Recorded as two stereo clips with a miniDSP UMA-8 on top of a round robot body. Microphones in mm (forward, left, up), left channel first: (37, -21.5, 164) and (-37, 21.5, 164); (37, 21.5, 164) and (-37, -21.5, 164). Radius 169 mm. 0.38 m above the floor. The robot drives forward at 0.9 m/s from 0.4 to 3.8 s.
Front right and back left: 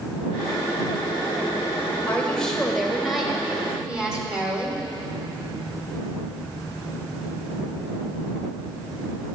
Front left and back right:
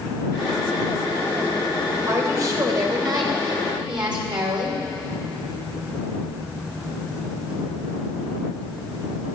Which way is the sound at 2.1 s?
105° right.